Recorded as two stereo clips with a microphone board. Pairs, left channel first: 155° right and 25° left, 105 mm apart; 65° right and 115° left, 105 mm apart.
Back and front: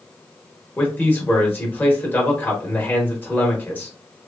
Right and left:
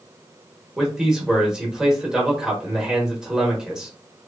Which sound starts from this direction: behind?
A man speaking, at 0.8 s.